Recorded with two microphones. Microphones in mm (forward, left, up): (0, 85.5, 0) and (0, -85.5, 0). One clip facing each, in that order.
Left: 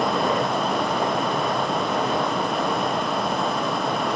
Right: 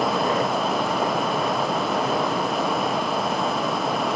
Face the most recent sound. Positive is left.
No sound to turn to.